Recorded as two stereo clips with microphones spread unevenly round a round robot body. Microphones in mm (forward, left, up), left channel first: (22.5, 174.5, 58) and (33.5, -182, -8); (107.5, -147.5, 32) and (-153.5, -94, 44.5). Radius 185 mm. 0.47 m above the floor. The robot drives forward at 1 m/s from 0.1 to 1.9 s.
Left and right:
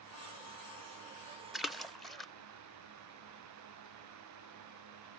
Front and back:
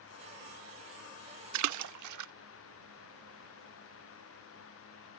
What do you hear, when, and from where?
1.5 s a splash: 170° right; by 2.3 s 175° right